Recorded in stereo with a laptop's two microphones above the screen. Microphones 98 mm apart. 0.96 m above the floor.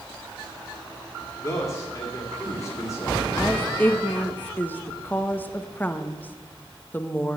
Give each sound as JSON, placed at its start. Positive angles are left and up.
{"t": 1.4, "sound": "a man speaking", "side_deg": 35, "distance_m": 2.0}
{"t": 3.4, "sound": "a woman speaking", "side_deg": 20, "distance_m": 1.0}